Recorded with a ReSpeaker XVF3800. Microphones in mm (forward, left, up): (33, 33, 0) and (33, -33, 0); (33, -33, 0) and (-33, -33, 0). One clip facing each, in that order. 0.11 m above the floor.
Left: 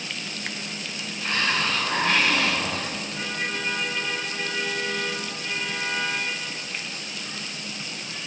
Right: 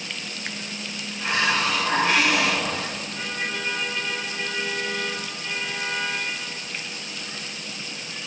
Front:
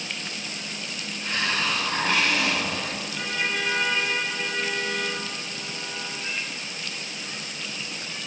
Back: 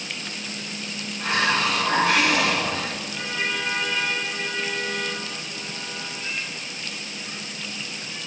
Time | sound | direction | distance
1.2 | a hiss | 170° right | 6.5 m